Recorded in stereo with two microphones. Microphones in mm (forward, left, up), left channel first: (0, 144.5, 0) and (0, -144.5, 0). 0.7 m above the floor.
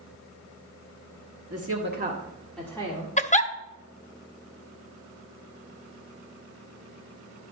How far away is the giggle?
About 0.6 m.